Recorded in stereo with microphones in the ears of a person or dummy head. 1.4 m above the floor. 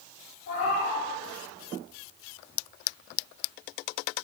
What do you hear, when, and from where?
0.5 s a cat meowing: 50° left (ahead or behind), 3 m